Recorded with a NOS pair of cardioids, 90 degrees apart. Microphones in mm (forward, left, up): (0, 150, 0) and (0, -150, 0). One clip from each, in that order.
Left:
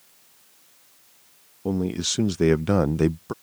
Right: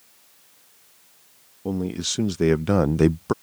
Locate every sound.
1.6 s a man speaking: 15° left; by 3.3 s 45° right